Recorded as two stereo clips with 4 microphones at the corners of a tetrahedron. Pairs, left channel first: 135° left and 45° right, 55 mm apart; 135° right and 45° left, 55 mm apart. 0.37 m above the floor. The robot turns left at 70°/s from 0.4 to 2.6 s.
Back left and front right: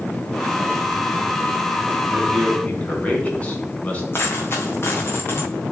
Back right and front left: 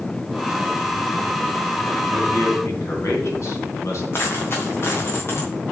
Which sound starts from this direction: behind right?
A man speaking, at 2.1 s.